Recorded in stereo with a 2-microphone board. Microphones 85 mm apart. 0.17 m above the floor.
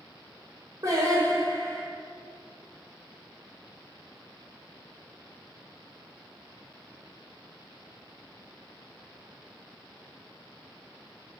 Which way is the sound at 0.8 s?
40° right (ahead or behind).